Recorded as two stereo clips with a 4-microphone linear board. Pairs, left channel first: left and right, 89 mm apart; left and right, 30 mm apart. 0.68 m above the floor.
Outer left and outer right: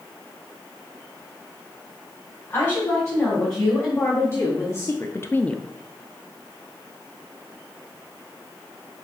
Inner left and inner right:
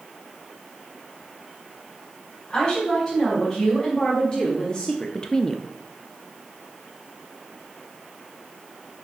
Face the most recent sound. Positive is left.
turn(degrees=0)  # may be behind; listen again after turning